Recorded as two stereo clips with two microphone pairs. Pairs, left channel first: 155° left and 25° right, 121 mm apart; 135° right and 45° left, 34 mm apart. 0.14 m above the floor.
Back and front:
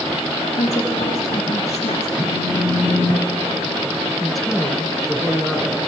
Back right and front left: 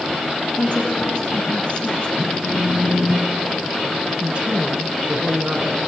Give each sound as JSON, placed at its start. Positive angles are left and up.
{"t": 0.6, "sound": "a woman speaking", "azimuth_deg": 170, "distance_m": 9.5}
{"t": 2.2, "sound": "a phone buzzing", "azimuth_deg": 30, "distance_m": 4.0}
{"t": 4.2, "sound": "a woman speaking", "azimuth_deg": 65, "distance_m": 2.0}